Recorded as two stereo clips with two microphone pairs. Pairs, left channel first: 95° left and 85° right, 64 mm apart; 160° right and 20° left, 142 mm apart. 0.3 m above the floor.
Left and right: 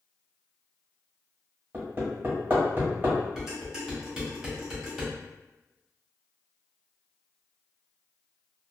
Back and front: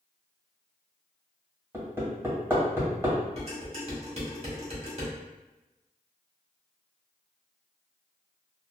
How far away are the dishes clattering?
About 1.2 m.